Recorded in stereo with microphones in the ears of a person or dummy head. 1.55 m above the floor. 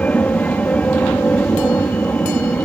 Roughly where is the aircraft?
Centre.